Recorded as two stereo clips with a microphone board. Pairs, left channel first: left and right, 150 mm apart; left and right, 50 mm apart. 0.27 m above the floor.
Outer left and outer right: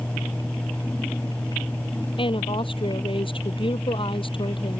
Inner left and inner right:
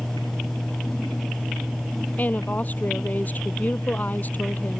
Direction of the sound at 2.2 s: 35° left (ahead or behind).